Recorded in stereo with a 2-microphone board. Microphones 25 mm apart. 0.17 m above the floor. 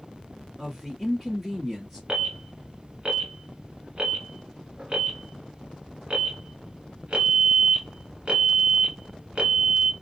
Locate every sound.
0.6 s a woman speaking: 10° right (ahead or behind), 1.5 m
2.1 s an alarm: 40° right (ahead or behind), 1.2 m